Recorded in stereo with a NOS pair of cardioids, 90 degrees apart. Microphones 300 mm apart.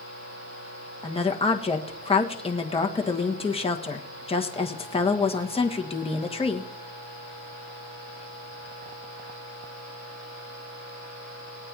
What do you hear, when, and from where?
1.0 s a woman speaking: 20° left, 1.5 m